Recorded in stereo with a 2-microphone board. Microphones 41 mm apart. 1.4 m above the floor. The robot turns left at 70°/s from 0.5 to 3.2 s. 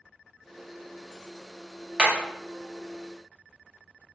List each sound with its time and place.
2.0 s hammering: 20° right (ahead or behind), 0.8 m; by 2.1 s 10° right (ahead or behind), 0.8 m